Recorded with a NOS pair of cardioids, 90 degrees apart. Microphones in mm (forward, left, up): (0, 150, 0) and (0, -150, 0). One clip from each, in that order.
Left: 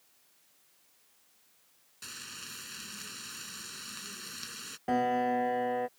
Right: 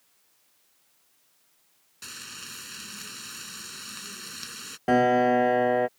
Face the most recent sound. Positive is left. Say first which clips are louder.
# right 8 dB
turn(degrees=-50)